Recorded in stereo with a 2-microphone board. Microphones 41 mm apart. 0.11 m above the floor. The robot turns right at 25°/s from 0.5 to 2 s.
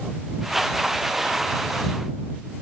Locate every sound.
Only background noise.